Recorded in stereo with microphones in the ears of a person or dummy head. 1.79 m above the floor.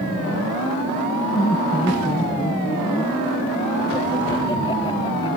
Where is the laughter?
20° left (ahead or behind).